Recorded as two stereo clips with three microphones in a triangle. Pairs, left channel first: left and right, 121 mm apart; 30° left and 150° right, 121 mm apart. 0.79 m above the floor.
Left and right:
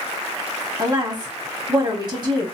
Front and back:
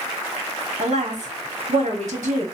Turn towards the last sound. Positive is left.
turn(degrees=-145)